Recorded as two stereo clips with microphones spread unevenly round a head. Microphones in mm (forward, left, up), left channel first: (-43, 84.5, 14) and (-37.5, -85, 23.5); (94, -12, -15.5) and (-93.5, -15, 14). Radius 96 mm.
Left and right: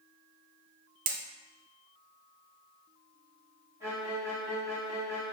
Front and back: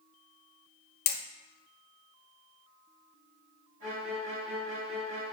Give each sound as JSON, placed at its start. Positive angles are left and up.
{"t": 1.1, "sound": "hammering", "azimuth_deg": -40, "distance_m": 0.5}
{"t": 3.8, "sound": "a violin", "azimuth_deg": -165, "distance_m": 2.0}